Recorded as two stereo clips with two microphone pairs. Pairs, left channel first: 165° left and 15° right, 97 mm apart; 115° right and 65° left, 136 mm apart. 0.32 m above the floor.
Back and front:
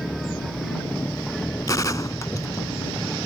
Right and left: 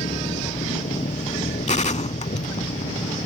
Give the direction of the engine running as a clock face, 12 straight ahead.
4 o'clock.